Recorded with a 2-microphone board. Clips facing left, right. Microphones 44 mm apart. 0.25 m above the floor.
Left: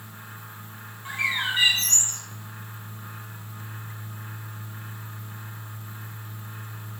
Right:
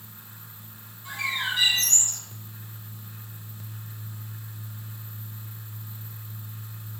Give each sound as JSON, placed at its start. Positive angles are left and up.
{"t": 1.1, "sound": "a bird", "side_deg": 40, "distance_m": 1.3}